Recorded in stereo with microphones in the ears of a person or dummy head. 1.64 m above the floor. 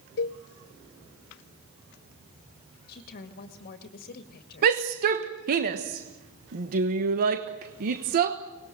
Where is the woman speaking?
45° left (ahead or behind), 2 m.